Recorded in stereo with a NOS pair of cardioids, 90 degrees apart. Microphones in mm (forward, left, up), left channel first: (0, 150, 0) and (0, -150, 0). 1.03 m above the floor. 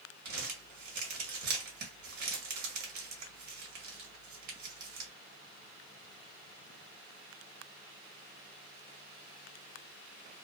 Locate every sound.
0.2 s crumpling: 70° right, 1.4 m